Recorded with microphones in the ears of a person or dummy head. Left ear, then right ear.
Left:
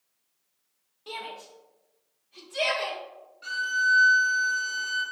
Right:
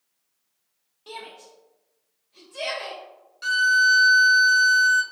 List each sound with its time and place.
1.1 s a shout: 5° left (ahead or behind), 1.0 m; by 3.0 s 55° left (ahead or behind), 2 m
3.4 s a violin: 50° right (ahead or behind), 0.9 m